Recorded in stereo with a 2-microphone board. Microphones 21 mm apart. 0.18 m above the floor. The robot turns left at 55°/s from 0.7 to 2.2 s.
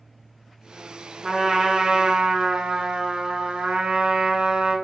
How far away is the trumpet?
About 0.6 m.